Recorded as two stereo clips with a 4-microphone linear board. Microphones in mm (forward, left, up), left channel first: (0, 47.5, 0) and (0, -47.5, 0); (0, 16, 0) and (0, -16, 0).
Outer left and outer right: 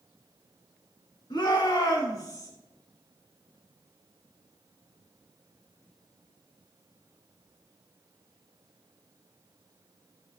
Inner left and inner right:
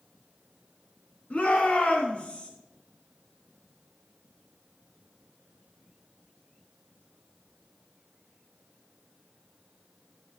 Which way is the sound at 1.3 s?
50° left (ahead or behind).